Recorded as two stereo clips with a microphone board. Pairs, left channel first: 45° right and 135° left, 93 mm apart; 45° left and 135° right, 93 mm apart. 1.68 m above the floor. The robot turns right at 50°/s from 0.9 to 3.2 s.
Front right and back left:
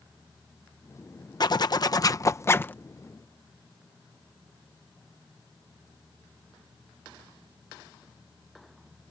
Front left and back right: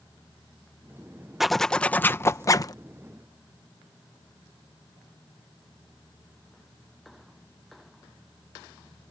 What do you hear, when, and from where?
1.4 s a zipper: 50° right; by 2.8 s 15° left